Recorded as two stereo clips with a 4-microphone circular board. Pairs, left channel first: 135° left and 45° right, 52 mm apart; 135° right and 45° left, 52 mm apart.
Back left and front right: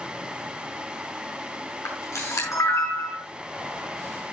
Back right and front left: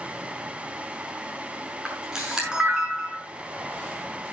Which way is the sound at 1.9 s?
120° left.